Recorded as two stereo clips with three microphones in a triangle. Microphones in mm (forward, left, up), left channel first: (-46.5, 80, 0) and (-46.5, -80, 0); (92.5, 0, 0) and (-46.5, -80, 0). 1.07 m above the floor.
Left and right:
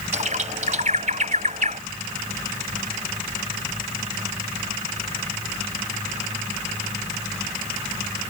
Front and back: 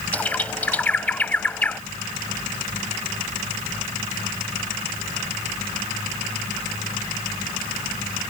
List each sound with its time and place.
0.1 s a bird: 50° right